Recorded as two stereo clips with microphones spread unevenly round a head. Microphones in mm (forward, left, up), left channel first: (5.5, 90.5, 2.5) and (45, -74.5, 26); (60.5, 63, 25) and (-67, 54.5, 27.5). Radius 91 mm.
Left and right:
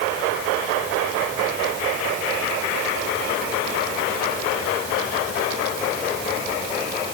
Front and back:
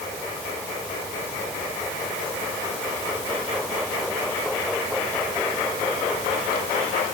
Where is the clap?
I don't hear a clap.